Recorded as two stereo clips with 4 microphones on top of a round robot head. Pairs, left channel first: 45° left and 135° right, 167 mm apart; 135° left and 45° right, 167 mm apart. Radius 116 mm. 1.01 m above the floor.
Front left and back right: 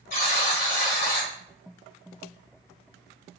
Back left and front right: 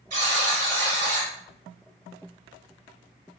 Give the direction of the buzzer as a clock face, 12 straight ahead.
12 o'clock.